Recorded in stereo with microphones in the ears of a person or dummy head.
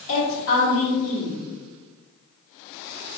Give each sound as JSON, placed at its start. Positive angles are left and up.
{"t": 0.1, "sound": "a woman speaking", "side_deg": 50, "distance_m": 1.1}